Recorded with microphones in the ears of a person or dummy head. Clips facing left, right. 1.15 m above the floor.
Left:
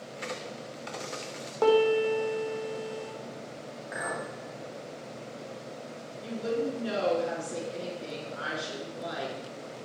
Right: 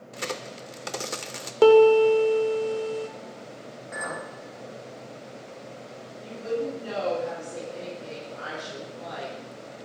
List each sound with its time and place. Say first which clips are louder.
0.1 s a crack: right 4 dB; 60° right (ahead or behind), 0.5 m
1.6 s a piano: right 8 dB; 40° right (ahead or behind), 0.9 m
3.9 s a clink: even; 25° left (ahead or behind), 1.8 m
6.2 s a woman speaking: right 1 dB; 35° left (ahead or behind), 2.5 m